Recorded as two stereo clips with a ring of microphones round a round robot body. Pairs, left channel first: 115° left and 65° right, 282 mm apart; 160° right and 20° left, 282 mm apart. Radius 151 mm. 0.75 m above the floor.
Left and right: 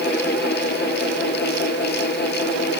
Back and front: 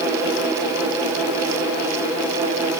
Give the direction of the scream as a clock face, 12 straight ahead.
I don't hear a scream.